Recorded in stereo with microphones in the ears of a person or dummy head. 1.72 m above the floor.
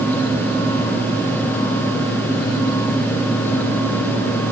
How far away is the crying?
No crying in this recording.